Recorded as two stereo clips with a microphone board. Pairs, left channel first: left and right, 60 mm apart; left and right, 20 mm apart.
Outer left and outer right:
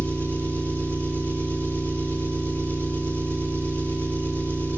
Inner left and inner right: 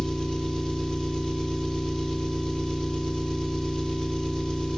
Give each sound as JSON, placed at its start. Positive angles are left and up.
{"t": 0.0, "sound": "an engine running", "side_deg": 35, "distance_m": 2.0}